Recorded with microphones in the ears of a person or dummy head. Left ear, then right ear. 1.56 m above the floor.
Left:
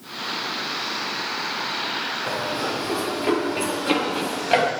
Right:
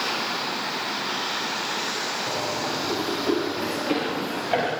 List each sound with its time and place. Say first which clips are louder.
2.3 s running footsteps: left 1 dB; 60° left (ahead or behind), 5.5 m; by 4.7 s 45° left (ahead or behind), 5 m